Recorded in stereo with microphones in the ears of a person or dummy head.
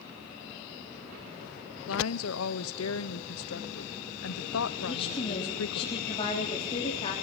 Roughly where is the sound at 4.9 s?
Left.